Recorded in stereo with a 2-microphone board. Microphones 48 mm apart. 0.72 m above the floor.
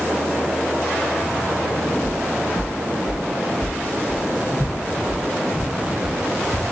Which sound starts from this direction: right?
Footsteps, at 2.0 s.